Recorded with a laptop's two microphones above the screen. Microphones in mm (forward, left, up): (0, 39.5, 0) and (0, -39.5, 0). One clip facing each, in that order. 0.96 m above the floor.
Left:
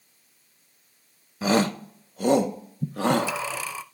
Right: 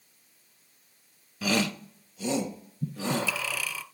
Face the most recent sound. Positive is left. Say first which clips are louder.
# left 7 dB
turn(degrees=30)  # may be behind; listen again after turning